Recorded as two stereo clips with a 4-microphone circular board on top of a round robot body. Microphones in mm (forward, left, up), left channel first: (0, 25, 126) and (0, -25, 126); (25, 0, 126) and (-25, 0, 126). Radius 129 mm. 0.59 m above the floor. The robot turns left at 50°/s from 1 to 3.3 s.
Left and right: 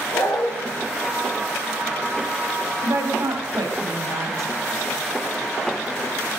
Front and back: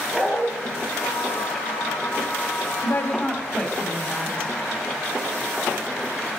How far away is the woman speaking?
About 4.5 m.